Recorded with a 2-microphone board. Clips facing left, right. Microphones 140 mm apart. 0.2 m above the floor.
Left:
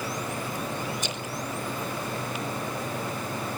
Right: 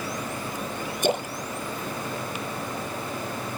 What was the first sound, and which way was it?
A splash, 55° right (ahead or behind).